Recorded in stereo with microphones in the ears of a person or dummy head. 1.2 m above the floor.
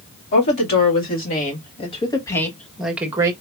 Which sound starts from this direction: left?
A woman speaking, at 0.3 s.